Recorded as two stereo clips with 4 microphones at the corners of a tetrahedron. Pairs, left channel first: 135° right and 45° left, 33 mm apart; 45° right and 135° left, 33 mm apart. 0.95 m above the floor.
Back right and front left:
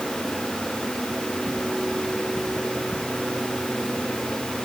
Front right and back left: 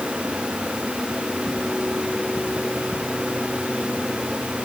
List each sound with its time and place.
Only background noise.